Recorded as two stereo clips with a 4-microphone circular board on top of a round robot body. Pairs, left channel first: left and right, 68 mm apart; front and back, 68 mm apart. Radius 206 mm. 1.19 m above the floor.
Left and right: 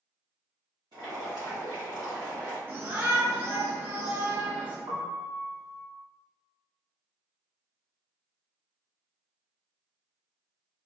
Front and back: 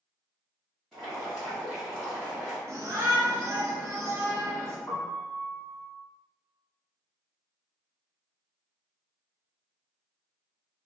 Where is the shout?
145° right, 1.0 m.